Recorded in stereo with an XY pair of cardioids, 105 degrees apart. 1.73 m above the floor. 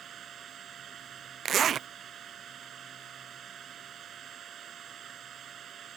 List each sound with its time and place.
0.0 s a machine running: 55° right
1.4 s a zipper: 55° right